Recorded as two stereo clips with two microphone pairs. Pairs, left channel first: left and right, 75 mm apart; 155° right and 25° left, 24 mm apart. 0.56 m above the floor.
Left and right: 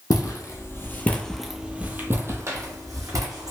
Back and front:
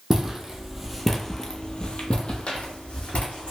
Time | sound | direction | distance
0.1 | footsteps | 90° left | 0.9 m